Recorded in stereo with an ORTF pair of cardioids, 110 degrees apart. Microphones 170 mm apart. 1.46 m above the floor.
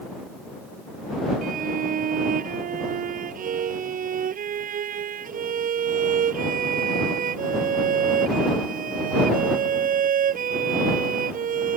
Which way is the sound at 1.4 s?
50° right.